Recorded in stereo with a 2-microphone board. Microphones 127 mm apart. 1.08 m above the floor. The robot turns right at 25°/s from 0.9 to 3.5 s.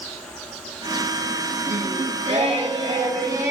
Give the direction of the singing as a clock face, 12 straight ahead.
2 o'clock.